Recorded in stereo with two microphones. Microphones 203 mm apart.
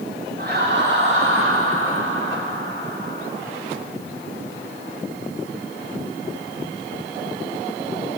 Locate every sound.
0.4 s laughter: 50° right (ahead or behind), 2.5 m